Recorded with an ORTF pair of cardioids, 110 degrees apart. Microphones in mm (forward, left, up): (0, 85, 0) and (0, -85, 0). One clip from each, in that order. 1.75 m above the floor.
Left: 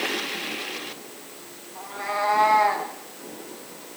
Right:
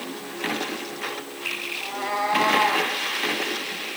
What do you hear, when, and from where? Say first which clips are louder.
1.8 s a cat meowing: left 3 dB; straight ahead, 5.5 m; by 2.9 s 10° right, 5 m